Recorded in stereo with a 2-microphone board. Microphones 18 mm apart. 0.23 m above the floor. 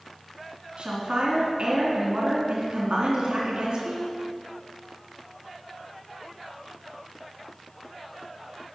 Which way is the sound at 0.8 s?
60° right (ahead or behind).